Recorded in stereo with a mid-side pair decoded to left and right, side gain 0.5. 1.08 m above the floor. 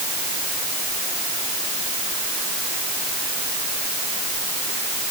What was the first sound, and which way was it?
Only background noise.